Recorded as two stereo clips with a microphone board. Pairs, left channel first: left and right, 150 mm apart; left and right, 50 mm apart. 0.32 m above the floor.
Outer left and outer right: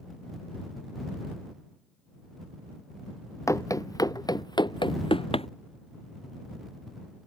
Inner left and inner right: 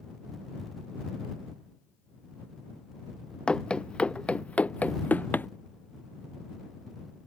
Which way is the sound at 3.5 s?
20° left (ahead or behind).